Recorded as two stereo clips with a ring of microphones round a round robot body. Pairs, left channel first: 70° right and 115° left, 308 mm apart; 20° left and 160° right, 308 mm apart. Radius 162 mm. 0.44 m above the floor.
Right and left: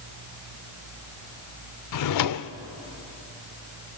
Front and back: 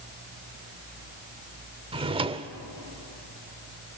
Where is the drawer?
85° right, 0.8 m.